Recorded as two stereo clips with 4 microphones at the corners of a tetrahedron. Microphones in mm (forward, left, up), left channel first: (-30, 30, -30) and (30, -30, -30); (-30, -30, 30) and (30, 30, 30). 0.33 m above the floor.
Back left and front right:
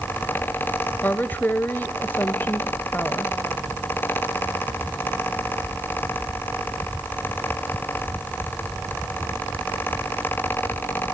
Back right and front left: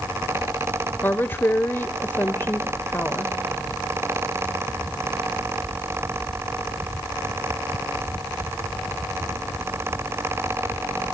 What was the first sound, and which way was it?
A woman speaking, straight behind.